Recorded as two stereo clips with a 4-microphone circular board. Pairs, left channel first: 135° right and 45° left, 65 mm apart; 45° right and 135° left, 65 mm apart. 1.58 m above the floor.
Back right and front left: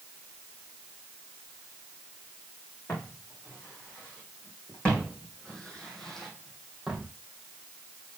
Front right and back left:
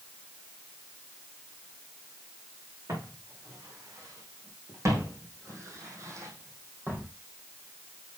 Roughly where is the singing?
No singing in this recording.